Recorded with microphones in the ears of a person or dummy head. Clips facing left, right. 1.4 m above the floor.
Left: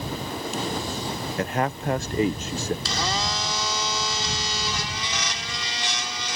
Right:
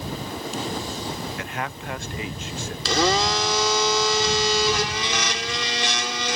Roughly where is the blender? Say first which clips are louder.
Right 7 dB; right.